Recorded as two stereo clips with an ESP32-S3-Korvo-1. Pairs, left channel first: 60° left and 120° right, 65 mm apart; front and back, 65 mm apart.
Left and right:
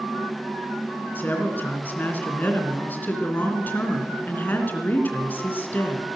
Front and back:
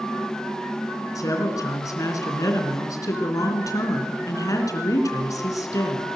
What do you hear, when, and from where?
1.1 s a woman speaking: 5° left, 3 m